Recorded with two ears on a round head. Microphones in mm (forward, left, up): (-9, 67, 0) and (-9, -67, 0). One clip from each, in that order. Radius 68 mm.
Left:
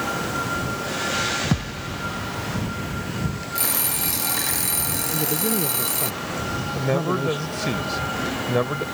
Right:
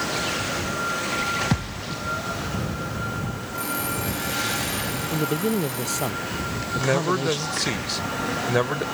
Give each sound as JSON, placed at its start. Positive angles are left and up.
{"t": 1.5, "sound": "a thud", "side_deg": -20}
{"t": 3.5, "sound": "an alarm clock", "side_deg": 60}
{"t": 5.1, "sound": "a man speaking", "side_deg": -45}
{"t": 6.8, "sound": "a man speaking", "side_deg": -45}